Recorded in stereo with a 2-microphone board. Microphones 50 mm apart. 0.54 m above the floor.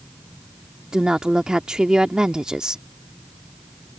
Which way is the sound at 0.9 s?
15° right (ahead or behind).